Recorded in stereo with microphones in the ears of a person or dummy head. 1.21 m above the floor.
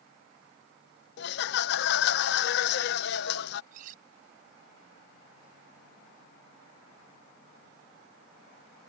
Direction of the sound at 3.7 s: 40° right (ahead or behind).